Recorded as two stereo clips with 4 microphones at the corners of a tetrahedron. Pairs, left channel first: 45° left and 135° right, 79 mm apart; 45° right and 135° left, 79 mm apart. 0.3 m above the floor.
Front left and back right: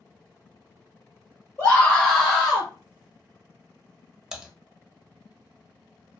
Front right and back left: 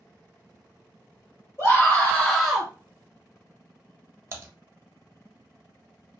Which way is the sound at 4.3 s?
150° left.